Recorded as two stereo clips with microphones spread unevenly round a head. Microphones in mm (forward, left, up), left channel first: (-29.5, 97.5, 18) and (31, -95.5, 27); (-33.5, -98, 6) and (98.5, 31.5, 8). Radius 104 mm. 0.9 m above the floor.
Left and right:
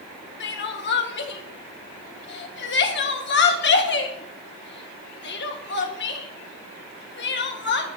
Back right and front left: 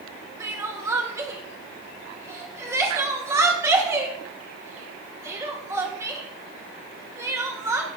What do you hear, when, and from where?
0.4 s crying: 120° left, 1.7 m